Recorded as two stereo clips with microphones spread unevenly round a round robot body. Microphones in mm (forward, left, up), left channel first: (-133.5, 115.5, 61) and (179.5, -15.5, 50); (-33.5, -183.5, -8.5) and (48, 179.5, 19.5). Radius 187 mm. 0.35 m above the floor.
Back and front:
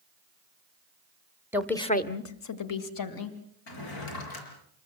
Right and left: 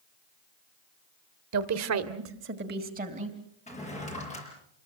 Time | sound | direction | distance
1.5 | a woman speaking | 55° left | 1.3 m
3.7 | a drawer | 175° right | 5 m